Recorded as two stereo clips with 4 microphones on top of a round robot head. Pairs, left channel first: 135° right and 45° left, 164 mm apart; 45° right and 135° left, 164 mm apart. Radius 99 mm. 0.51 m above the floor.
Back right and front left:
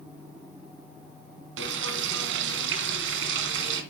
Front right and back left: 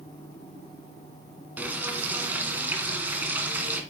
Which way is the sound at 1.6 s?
50° left.